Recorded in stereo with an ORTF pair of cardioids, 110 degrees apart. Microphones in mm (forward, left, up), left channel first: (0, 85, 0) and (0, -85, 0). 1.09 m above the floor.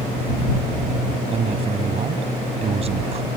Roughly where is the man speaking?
Ahead right.